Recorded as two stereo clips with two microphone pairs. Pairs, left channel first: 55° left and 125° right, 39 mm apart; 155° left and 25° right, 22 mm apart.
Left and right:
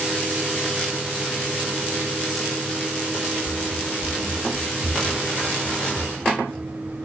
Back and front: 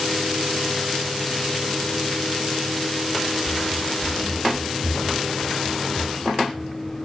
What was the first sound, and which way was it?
Running footsteps, 110° right.